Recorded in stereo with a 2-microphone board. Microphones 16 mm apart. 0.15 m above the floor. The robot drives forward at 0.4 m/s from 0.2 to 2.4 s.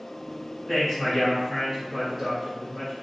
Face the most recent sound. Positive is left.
turn(degrees=-15)  # may be behind; listen again after turning